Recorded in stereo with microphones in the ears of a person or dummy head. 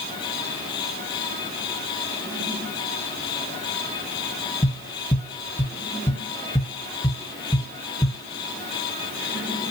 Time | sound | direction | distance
4.6 | tapping | 20° left (ahead or behind) | 1.7 m